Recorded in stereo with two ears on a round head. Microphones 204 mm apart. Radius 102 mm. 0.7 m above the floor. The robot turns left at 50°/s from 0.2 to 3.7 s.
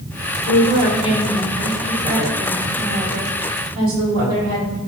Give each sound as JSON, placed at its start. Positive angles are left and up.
{"t": 0.5, "sound": "a woman speaking", "azimuth_deg": 70, "distance_m": 2.0}